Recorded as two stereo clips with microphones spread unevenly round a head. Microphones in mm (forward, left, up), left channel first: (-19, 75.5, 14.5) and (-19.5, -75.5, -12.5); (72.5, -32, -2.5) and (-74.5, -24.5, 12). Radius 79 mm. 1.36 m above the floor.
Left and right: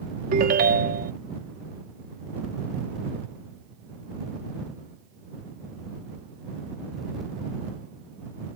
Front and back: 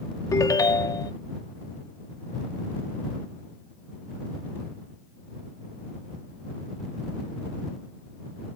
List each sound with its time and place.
0.3 s a ringtone: 70° right